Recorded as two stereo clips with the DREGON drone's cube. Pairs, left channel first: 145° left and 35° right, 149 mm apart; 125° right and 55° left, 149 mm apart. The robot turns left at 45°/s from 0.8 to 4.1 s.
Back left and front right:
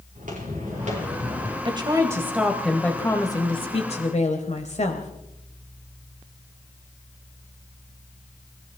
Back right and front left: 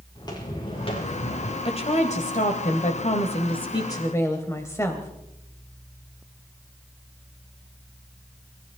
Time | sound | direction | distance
0.1 | footsteps | 60° right | 6 m
1.6 | a woman speaking | 80° right | 1.5 m